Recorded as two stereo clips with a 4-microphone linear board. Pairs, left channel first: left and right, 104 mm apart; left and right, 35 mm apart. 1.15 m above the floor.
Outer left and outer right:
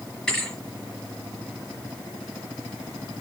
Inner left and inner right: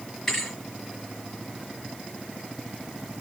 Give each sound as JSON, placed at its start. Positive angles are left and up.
{"t": 0.3, "sound": "a thud", "side_deg": 10, "distance_m": 5.0}